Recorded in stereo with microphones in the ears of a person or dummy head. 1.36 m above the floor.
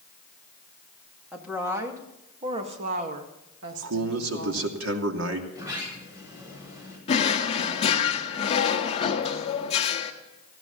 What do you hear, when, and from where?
1.3 s a woman speaking: 5° right (ahead or behind), 2.5 m; by 4.7 s 85° right, 2.5 m
3.7 s a man speaking: 85° right, 2.5 m
5.5 s a sliding door: 20° right (ahead or behind), 6.5 m
7.1 s a drawer: 35° left (ahead or behind), 1.4 m